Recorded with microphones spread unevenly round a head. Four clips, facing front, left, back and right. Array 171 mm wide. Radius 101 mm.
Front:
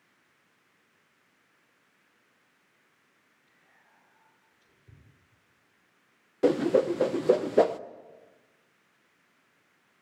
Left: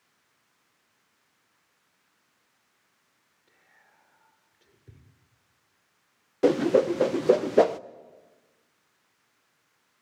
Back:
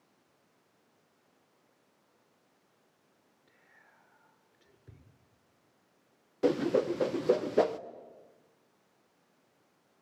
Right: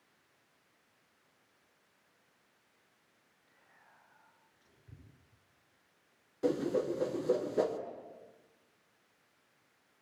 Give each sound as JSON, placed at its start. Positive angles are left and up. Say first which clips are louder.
{"t": 3.5, "sound": "whispering", "louder": "left 2 dB, back 1 dB", "azimuth_deg": 145, "distance_m": 6.5}
{"t": 6.4, "sound": "a whoosh", "louder": "left 11 dB, front 4 dB", "azimuth_deg": 90, "distance_m": 0.5}